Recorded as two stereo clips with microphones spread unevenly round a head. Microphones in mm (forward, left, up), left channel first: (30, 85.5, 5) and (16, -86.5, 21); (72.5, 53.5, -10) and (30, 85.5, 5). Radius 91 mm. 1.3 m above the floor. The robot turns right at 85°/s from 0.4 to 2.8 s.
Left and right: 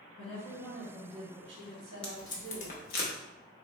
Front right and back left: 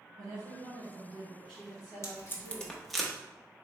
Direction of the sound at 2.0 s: Straight ahead.